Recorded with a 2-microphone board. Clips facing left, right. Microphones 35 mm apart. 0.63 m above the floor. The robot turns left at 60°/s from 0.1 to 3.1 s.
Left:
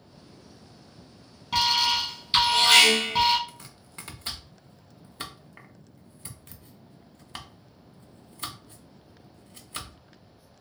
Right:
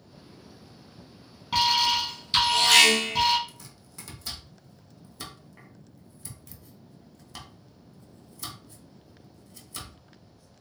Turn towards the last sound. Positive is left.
turn(degrees=40)  # may be behind; listen again after turning